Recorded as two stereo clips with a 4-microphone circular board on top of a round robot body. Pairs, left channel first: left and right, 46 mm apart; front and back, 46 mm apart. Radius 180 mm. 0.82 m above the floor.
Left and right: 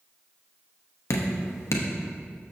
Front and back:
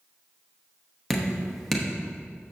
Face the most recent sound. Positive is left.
turn(degrees=85)